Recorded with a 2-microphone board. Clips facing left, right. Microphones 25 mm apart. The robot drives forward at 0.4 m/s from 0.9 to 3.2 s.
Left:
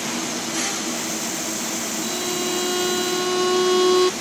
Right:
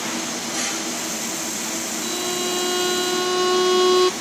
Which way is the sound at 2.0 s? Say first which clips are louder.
Right 1 dB; 10° right (ahead or behind).